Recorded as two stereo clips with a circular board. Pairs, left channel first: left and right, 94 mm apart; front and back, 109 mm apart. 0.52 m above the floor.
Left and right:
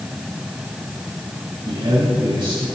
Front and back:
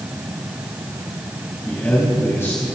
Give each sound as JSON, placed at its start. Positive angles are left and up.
{"t": 1.6, "sound": "a man speaking", "azimuth_deg": -70, "distance_m": 3.5}